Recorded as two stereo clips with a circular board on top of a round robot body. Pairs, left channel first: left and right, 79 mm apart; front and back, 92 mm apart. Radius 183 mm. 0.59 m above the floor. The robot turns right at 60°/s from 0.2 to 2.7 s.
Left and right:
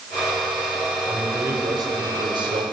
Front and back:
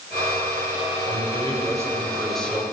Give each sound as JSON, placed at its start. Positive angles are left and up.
{"t": 1.1, "sound": "a man speaking", "azimuth_deg": -165, "distance_m": 5.0}